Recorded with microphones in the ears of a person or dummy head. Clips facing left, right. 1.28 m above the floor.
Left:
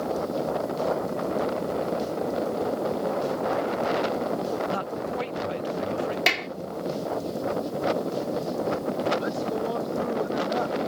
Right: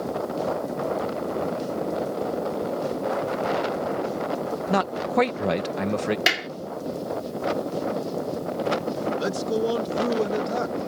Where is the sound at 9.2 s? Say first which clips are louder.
Right 3 dB; 35° right (ahead or behind).